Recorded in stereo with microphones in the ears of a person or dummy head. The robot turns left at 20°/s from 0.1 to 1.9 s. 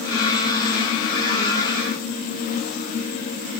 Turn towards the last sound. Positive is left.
No sound to turn to.